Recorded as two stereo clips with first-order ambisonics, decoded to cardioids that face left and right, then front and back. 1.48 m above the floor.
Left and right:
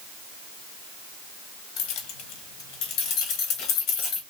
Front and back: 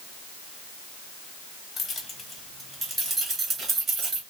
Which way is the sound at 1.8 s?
70° left.